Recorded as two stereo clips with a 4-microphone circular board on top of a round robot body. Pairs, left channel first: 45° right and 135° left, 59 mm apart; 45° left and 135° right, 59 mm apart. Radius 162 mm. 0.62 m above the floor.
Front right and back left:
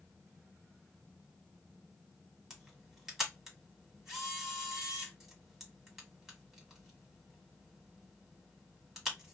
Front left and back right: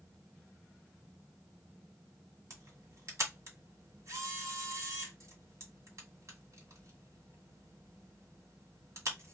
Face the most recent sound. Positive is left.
turn(degrees=-145)